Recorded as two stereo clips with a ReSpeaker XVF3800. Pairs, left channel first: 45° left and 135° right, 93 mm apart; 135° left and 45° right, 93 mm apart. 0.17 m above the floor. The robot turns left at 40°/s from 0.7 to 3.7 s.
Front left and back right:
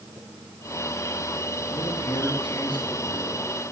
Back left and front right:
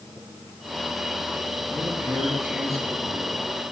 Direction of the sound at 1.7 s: 50° left.